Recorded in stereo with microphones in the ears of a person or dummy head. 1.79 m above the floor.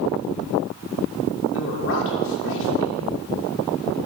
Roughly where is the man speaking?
Left.